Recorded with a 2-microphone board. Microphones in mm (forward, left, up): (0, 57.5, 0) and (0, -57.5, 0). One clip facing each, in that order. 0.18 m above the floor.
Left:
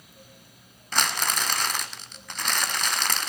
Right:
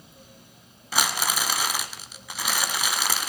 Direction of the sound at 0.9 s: 5° right (ahead or behind).